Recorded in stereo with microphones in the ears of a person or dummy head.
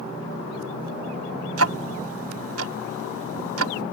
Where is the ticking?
80° right.